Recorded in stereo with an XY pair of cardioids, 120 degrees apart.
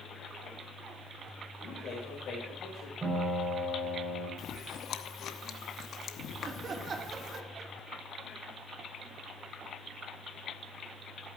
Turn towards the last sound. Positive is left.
turn(degrees=-40)